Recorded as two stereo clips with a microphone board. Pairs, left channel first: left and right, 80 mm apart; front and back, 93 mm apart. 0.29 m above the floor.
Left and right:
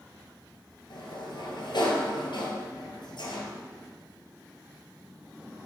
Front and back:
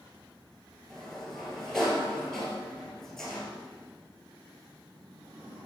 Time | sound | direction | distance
0.9 | a sliding door | 85° left | 1.9 m